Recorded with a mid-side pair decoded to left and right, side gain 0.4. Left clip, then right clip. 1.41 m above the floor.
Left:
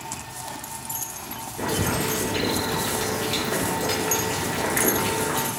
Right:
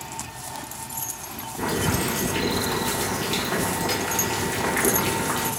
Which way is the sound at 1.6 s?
25° right.